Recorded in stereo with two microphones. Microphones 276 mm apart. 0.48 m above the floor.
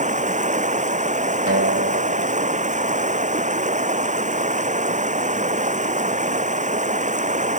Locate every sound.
0.0 s running water: 25° right (ahead or behind)
1.5 s a guitar: 50° right (ahead or behind)